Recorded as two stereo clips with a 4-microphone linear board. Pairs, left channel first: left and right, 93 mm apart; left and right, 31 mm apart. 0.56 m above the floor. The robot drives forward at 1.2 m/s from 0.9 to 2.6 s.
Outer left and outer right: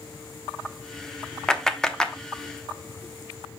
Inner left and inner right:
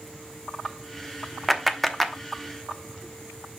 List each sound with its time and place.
1.5 s a clap: 5° left (ahead or behind), 0.9 m